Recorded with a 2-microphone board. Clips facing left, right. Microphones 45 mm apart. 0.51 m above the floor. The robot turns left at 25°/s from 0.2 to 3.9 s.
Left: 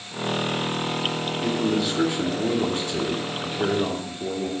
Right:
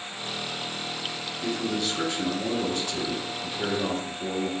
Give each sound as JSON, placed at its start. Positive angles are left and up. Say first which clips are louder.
{"t": 1.4, "sound": "a man speaking", "louder": "left 4 dB", "side_deg": 10, "distance_m": 0.7}